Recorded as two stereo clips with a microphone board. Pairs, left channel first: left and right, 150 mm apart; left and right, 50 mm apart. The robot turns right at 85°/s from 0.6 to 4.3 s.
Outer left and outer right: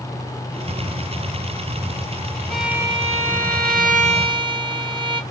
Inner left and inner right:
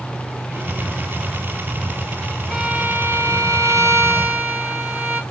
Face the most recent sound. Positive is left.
turn(degrees=-35)